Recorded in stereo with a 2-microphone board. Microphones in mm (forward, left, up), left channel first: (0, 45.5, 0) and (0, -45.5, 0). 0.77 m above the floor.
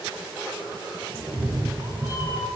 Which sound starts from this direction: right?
A cat meowing, at 1.1 s.